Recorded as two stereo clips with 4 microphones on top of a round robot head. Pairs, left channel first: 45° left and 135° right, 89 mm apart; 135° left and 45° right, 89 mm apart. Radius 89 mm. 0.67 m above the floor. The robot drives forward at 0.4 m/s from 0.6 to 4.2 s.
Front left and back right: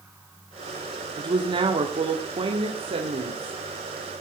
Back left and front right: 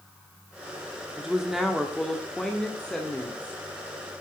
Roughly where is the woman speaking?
Behind right.